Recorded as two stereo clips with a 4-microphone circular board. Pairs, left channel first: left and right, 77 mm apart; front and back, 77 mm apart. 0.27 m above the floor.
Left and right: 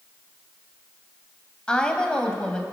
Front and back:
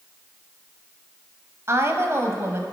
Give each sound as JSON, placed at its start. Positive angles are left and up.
{"t": 1.7, "sound": "a woman speaking", "azimuth_deg": 160, "distance_m": 1.4}